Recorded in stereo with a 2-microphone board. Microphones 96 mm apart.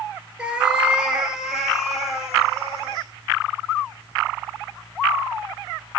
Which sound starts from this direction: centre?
A cat meowing, at 0.4 s.